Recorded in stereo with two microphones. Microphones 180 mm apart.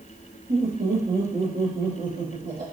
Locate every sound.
0.5 s laughter: 55° right (ahead or behind), 2.5 m; by 2.6 s 65° right (ahead or behind), 4.5 m